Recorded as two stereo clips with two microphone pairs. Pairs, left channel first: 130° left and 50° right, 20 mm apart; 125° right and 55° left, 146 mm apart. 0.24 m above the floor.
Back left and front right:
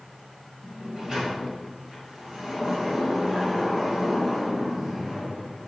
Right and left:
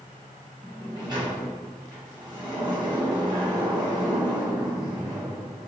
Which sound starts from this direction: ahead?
A sliding door, at 0.6 s.